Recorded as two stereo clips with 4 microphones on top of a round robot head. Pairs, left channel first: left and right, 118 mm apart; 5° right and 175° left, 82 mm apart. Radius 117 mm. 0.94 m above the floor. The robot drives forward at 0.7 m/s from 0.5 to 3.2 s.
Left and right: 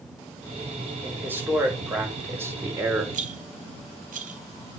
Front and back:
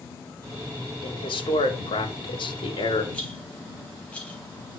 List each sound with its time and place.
1.0 s a man speaking: 15° right, 5.5 m; by 3.0 s 20° right, 4 m
3.1 s a rattle: 85° right, 4 m